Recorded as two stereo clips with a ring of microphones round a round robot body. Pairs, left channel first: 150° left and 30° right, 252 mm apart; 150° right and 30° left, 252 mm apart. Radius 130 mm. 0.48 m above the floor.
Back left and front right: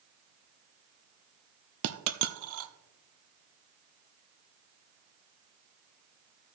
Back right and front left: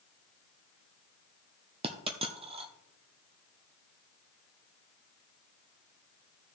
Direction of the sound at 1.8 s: 35° right.